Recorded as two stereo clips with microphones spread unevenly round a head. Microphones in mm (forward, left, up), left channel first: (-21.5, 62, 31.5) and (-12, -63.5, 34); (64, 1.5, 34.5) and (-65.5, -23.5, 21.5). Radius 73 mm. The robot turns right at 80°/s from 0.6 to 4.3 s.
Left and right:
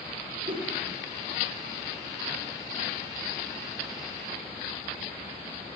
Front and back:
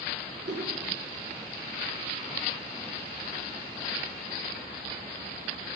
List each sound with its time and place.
0.5 s a whoosh: 135° right, 5 m; by 0.8 s 120° right, 5 m